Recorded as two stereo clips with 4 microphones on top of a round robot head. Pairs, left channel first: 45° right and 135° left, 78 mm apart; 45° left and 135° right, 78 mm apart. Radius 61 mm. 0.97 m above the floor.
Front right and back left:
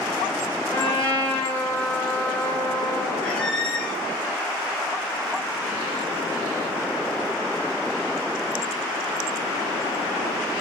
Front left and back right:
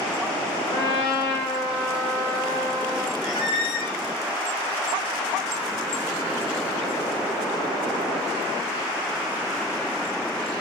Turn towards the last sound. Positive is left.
turn(degrees=30)